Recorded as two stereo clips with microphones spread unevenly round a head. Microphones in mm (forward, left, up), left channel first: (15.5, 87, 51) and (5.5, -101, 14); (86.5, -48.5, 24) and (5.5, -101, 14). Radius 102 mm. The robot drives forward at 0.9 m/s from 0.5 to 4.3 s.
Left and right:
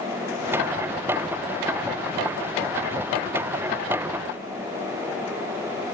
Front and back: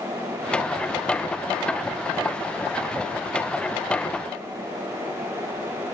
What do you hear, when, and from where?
Only background noise.